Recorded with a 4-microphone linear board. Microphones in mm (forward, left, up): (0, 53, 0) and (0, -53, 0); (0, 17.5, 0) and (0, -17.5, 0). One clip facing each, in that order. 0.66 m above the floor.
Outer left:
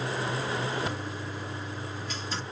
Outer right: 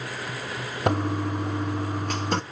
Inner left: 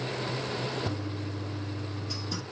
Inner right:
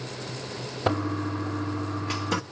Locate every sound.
0.9 s a toilet flushing: 60° right (ahead or behind), 0.9 m